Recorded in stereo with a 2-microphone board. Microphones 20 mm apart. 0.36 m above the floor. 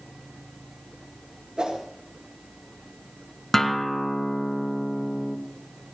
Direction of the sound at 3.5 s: 15° left (ahead or behind).